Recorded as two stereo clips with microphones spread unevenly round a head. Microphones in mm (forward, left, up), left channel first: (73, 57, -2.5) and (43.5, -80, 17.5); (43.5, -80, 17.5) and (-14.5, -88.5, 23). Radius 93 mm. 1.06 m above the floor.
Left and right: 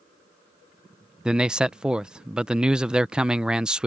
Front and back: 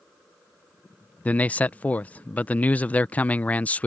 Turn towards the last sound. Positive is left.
turn(degrees=-10)